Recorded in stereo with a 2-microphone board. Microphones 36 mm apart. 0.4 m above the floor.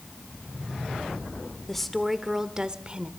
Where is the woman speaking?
10° left (ahead or behind), 1.2 m; by 3.1 s 35° right (ahead or behind), 1.4 m.